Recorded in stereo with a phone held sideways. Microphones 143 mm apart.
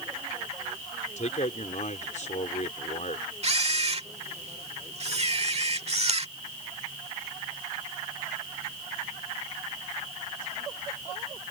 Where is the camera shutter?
45° right (ahead or behind).